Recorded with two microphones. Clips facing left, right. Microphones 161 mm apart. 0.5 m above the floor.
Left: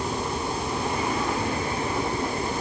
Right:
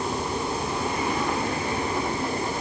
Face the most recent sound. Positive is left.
No sound to turn to.